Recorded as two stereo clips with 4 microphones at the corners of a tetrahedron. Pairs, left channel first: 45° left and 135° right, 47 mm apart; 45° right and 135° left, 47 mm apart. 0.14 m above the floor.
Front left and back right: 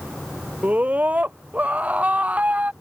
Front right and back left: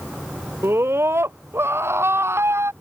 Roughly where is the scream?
Behind.